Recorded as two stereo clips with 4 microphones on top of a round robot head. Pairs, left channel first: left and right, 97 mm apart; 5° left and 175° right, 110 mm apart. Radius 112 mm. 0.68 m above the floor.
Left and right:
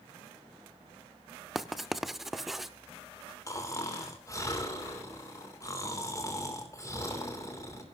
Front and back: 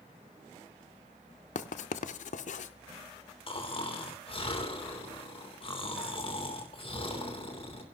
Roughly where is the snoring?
Ahead left.